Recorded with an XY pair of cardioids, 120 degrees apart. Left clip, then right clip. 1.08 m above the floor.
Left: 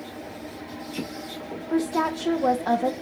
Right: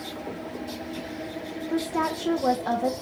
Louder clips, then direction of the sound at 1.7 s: Left 2 dB; 15° left.